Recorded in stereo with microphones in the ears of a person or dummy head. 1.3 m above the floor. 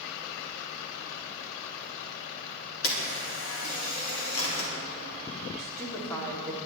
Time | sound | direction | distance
2.8 | a camera shutter | 80° left | 3.5 m
5.6 | a woman speaking | 10° left (ahead or behind) | 3 m